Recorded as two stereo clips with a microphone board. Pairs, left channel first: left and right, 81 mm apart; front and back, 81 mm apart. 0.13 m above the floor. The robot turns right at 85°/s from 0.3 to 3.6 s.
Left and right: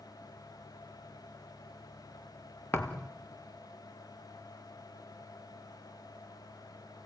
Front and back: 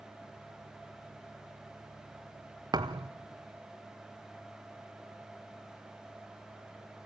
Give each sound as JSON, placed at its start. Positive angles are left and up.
{"t": 2.7, "sound": "a thud", "azimuth_deg": 145, "distance_m": 1.3}